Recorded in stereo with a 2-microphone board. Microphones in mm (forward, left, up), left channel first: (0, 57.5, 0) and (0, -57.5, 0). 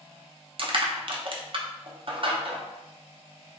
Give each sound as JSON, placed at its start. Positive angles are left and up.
{"t": 0.6, "sound": "crushing", "side_deg": -50, "distance_m": 0.5}